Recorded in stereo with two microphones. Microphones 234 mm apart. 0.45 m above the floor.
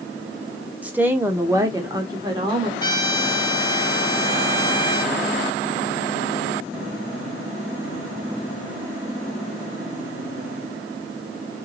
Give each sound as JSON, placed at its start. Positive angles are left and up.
{"t": 0.8, "sound": "a woman speaking", "side_deg": -5, "distance_m": 1.0}
{"t": 2.8, "sound": "a trumpet", "side_deg": 15, "distance_m": 0.7}